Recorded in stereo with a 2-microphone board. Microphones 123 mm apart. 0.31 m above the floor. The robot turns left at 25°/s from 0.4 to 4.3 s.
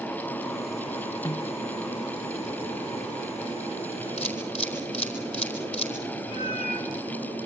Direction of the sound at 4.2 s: 70° left (ahead or behind).